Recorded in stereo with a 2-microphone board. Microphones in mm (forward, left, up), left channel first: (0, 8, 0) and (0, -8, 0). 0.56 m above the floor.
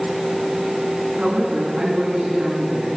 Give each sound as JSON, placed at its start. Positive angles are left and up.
{"t": 1.2, "sound": "a woman speaking", "side_deg": -80, "distance_m": 7.0}